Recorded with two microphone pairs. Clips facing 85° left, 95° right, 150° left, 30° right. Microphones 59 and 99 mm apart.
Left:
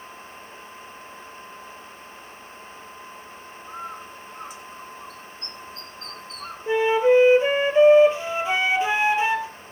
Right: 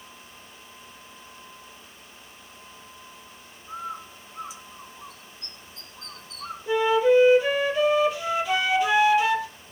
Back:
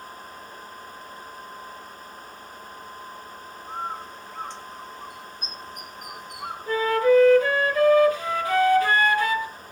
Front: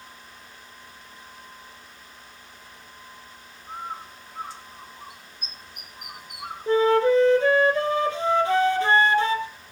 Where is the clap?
I don't hear a clap.